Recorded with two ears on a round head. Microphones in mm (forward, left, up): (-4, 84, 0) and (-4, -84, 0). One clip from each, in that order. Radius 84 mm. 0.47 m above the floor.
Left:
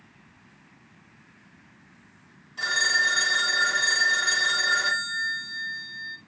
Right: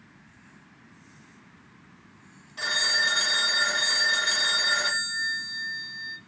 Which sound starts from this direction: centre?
A phone ringing, at 2.6 s.